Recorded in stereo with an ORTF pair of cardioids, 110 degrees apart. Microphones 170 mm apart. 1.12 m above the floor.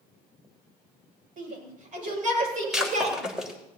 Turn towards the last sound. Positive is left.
turn(degrees=-5)